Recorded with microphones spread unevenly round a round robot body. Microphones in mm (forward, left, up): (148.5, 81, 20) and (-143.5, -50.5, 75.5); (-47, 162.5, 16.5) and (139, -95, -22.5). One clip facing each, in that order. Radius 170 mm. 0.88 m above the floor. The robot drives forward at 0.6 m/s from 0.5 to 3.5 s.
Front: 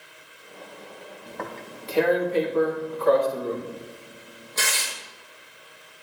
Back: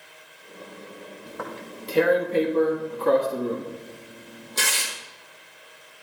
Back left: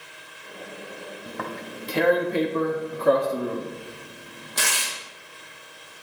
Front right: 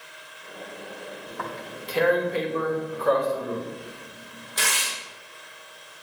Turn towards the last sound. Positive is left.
turn(degrees=150)